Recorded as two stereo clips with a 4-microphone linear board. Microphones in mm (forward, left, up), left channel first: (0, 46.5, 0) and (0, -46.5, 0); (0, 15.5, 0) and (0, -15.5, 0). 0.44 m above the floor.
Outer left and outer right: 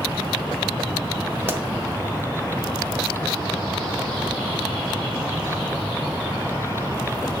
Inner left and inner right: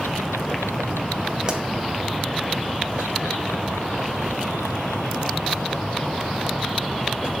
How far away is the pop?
About 1.3 m.